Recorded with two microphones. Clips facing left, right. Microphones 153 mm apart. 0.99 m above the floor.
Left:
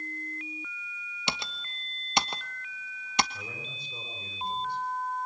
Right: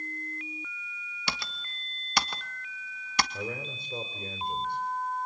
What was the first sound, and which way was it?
Typing on a keyboard, 20° left (ahead or behind).